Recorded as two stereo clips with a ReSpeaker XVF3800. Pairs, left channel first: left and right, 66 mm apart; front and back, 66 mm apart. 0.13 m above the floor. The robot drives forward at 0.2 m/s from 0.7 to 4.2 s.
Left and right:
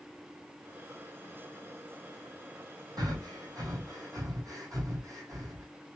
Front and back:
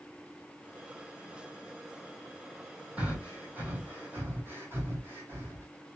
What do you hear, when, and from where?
3.0 s breathing: 110° right, 1.0 m; by 5.7 s 120° right, 1.1 m